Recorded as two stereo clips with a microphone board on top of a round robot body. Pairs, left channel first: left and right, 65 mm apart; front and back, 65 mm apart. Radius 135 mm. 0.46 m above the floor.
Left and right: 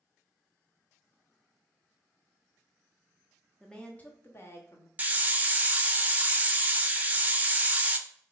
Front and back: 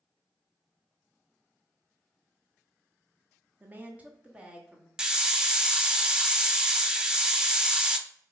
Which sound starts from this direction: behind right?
A hiss, at 5.0 s.